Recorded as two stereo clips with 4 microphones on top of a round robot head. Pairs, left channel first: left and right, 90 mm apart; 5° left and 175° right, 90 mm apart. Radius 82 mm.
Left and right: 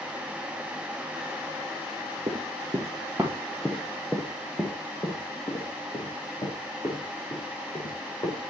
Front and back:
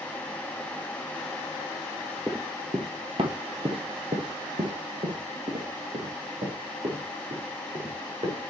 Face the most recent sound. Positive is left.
turn(degrees=145)